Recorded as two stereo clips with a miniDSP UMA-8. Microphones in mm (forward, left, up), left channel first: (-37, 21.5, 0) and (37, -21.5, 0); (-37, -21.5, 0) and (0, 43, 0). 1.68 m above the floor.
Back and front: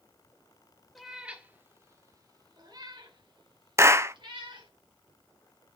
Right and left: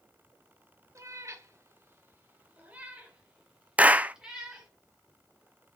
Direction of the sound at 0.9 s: 60° left.